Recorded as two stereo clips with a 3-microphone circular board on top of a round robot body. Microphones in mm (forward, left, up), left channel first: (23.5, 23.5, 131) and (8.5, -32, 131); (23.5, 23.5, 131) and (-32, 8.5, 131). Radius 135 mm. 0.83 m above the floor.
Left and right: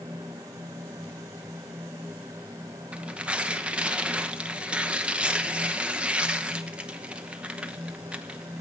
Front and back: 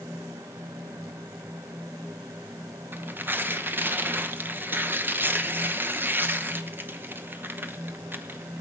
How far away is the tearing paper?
About 1.1 m.